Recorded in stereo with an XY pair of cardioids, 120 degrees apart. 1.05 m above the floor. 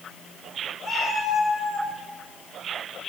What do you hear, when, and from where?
0.8 s a cat meowing: 35° left, 3 m; by 1.9 s 70° left, 3 m